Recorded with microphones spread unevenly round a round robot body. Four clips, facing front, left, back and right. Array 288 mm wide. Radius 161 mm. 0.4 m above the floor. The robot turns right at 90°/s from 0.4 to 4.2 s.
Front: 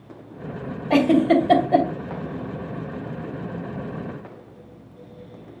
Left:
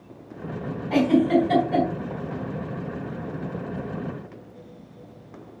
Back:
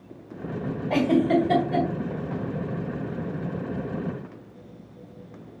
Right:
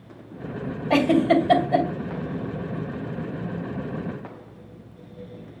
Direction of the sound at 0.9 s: 85° right.